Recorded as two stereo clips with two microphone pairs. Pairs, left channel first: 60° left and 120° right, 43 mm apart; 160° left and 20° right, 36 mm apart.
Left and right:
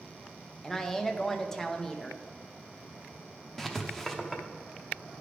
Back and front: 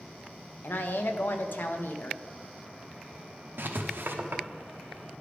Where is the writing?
25° right, 0.7 m.